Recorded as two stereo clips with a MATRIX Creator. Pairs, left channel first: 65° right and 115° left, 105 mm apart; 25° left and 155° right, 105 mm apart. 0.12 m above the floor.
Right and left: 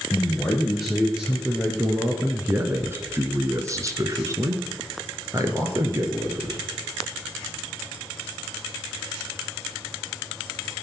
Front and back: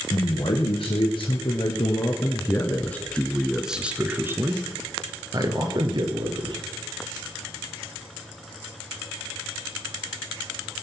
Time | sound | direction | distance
0.1 | a man speaking | 20° left | 2 m